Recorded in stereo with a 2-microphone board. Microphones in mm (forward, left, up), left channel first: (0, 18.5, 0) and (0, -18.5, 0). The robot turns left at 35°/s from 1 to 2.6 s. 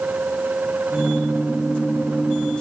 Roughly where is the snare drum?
I don't hear a snare drum.